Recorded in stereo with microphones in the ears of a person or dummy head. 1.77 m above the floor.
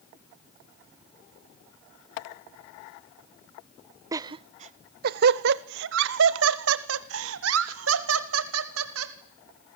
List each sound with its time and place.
4.1 s laughter: 20° right (ahead or behind), 0.6 m; by 9.1 s 85° right, 2.5 m